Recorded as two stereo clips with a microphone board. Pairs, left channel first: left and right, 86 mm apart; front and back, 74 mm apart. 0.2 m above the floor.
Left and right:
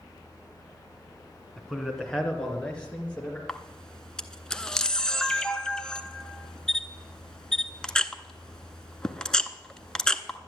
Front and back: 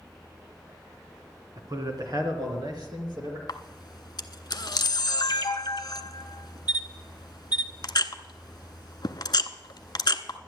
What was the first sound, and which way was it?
A man speaking, 175° left.